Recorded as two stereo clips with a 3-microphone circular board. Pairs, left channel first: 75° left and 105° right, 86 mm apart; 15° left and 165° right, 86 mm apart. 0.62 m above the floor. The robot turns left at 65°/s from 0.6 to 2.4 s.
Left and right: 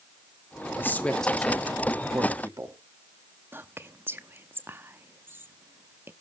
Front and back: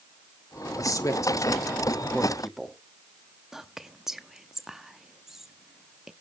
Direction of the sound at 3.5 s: 85° right.